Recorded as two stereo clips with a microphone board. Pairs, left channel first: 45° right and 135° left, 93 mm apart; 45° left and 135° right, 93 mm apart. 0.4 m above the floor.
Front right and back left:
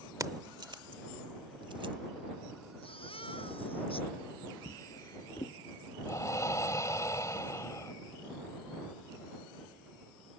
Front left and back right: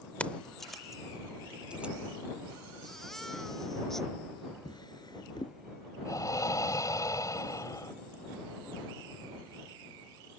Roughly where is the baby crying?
Ahead right.